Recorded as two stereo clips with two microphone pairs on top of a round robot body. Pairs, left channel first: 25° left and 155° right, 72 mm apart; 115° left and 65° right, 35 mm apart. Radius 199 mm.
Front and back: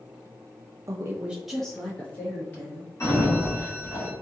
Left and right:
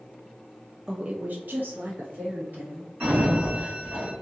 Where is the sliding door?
25° right, 1.3 m.